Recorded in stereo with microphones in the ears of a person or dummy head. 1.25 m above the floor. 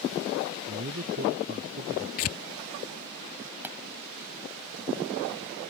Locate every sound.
0.7 s a man speaking: 50° right (ahead or behind); by 2.1 s 55° right (ahead or behind)
2.2 s tearing paper: 30° left (ahead or behind)
3.6 s a pop: 10° right (ahead or behind)